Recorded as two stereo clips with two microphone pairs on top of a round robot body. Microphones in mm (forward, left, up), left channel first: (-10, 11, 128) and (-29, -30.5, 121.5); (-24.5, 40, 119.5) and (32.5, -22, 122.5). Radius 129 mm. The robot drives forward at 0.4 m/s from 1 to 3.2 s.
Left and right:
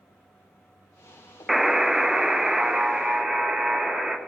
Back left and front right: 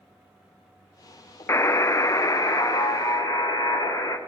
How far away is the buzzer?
About 0.6 m.